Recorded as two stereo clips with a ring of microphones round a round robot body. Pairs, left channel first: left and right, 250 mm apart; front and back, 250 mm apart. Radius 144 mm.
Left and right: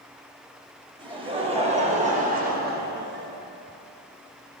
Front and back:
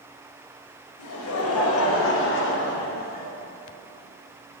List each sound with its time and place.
1.0 s laughter: 20° right, 3.5 m; by 3.3 s 55° right, 1.9 m